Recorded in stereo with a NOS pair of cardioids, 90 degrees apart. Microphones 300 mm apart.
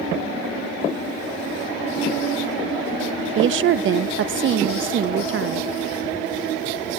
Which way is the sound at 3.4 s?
45° right.